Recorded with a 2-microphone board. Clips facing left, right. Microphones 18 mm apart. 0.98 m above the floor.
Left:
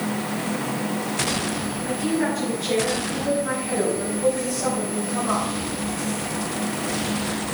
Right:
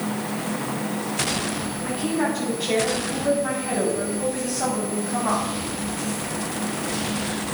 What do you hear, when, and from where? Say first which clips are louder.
1.8 s a woman speaking: even; 35° right (ahead or behind), 6.5 m; by 5.5 s 60° right (ahead or behind), 5.5 m